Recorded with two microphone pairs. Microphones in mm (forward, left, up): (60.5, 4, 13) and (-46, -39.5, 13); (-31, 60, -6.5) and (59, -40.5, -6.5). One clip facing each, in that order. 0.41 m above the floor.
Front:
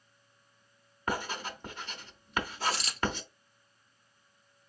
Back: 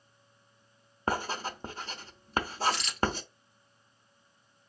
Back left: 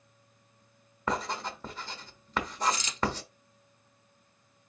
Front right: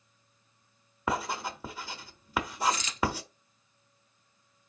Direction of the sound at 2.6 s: 75° left.